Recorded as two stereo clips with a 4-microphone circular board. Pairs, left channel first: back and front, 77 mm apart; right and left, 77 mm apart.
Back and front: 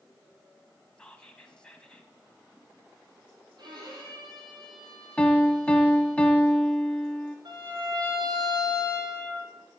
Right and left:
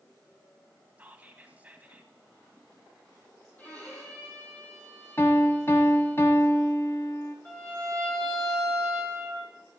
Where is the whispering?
120° left, 1.1 m.